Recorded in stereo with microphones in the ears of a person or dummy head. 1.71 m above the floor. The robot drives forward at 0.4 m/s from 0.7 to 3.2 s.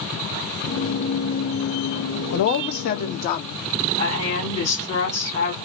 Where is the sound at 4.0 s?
30° left (ahead or behind), 2 m.